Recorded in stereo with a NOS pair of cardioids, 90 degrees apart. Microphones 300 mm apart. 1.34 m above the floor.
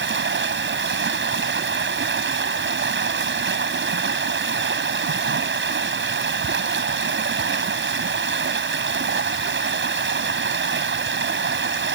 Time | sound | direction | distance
0.0 | running water | 40° right | ?